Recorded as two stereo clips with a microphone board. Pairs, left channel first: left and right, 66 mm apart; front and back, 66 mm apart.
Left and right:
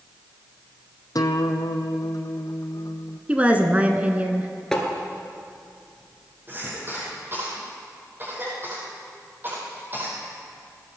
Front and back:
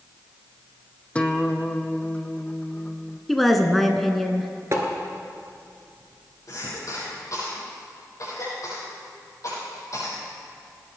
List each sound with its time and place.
1.1 s a guitar: 70° left, 0.9 m
3.3 s a woman speaking: 85° right, 1.1 m
4.7 s tapping: 170° left, 2.0 m
6.5 s a cough: 35° right, 5.5 m